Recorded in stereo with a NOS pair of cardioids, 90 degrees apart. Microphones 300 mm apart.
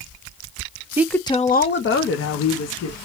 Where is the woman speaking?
10° right, 0.6 m; by 2.9 s 55° left, 1.8 m.